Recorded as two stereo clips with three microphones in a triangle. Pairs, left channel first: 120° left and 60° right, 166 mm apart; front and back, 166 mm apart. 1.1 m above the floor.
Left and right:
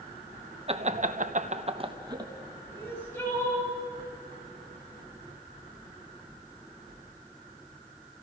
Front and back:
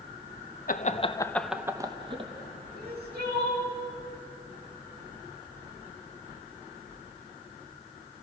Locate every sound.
0.7 s laughter: 15° right, 1.3 m; by 2.3 s 130° right, 2 m
2.7 s crying: 165° right, 5.5 m